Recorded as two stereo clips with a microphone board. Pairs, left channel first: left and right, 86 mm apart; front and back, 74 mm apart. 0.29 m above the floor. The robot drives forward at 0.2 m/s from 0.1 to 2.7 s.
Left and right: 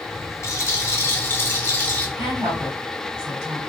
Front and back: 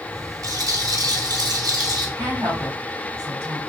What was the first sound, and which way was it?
A rattle, 145° left.